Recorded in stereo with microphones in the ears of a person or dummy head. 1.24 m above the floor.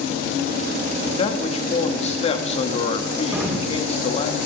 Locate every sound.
1.0 s a man speaking: 40° left (ahead or behind), 1.6 m
3.3 s an explosion: 15° right (ahead or behind), 3.5 m